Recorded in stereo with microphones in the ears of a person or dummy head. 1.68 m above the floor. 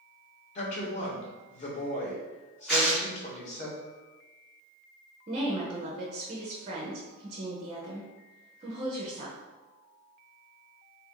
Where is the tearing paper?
Centre (ahead or behind), 1.6 m.